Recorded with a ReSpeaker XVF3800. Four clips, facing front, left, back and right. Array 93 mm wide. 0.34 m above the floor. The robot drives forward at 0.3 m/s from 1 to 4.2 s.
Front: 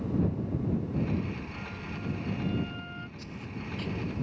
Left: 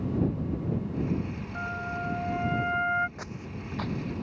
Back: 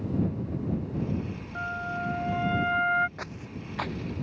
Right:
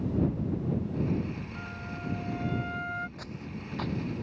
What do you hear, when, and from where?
1.6 s a flute: 145° left; by 3.1 s 150° left
3.2 s footsteps: 160° left; by 4.2 s 175° right